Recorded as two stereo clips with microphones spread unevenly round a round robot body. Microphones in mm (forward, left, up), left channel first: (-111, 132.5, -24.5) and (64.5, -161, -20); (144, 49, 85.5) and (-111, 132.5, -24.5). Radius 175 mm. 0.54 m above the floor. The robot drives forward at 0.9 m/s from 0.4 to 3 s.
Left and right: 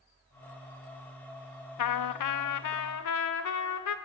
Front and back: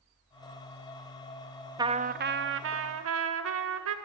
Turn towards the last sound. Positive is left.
turn(degrees=160)